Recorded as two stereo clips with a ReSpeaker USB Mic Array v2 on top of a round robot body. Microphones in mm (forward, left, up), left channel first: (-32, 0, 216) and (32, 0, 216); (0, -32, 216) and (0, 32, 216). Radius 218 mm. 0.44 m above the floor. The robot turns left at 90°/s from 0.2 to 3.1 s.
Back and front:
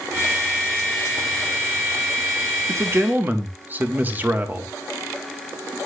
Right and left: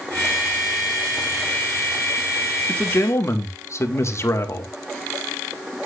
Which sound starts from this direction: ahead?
A man speaking, at 2.7 s.